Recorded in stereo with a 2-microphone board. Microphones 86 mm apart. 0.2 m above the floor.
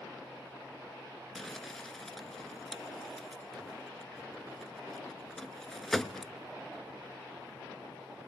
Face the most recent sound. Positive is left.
turn(degrees=5)  # may be behind; listen again after turning